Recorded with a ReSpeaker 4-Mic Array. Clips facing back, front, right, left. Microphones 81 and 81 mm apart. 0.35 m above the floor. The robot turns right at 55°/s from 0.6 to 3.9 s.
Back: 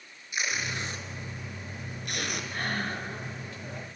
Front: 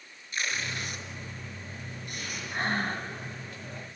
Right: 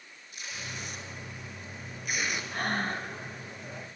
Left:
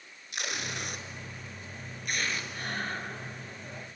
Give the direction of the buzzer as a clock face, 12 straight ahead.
No buzzer in this recording.